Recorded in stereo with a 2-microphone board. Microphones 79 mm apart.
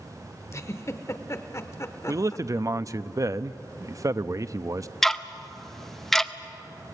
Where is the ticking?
5° left (ahead or behind), 0.7 m.